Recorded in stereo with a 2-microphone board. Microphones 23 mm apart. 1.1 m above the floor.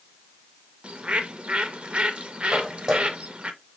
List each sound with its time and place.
0.8 s a bird: 55° right (ahead or behind), 0.6 m
2.5 s footsteps: 15° right (ahead or behind), 2 m